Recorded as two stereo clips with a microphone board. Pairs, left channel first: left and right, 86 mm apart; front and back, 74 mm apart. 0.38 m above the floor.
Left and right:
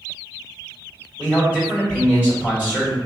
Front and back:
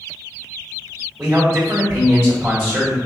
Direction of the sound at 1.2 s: 160° right.